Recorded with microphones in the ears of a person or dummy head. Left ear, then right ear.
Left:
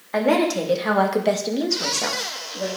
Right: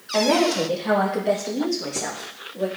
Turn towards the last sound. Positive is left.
turn(degrees=20)  # may be behind; listen again after turning